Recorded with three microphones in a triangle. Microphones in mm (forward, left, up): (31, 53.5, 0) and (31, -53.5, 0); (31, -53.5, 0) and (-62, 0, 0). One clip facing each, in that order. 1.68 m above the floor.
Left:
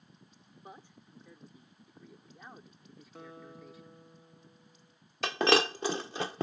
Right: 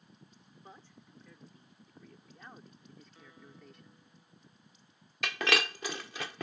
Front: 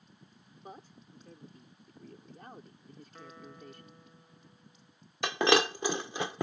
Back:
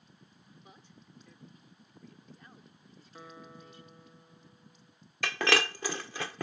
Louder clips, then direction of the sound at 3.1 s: Left 7 dB, back 1 dB; 70° left.